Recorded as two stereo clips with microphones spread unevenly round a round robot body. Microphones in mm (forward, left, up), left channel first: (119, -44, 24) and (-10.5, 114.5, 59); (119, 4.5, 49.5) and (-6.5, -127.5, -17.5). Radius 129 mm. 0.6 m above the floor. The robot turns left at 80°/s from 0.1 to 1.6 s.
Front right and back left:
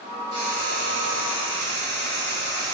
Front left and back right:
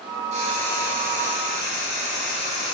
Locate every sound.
0.3 s frying: 155° right, 1.5 m; by 2.7 s 100° left, 1.5 m